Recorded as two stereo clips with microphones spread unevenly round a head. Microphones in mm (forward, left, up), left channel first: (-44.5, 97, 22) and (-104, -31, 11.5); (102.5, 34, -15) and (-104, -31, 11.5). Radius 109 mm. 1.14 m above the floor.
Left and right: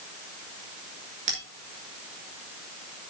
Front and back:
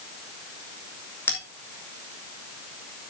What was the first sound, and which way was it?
A bell, 60° right.